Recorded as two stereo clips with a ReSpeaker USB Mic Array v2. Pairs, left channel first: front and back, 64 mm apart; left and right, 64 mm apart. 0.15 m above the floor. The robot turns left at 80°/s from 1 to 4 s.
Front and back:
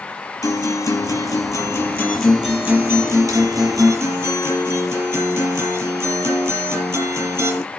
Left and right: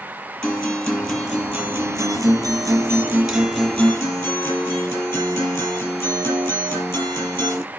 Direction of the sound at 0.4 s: 15° left.